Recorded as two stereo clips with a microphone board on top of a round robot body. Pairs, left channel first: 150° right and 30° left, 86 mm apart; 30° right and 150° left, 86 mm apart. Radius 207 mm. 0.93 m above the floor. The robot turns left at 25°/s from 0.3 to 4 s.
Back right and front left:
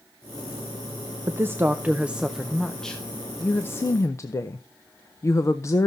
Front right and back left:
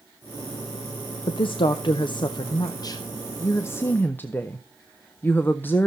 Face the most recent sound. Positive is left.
turn(degrees=-95)